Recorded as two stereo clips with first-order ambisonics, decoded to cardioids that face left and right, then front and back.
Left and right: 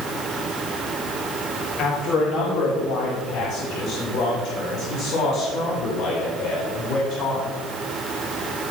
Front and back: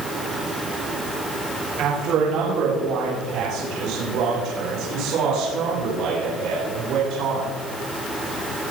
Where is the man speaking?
140° left, 7 m.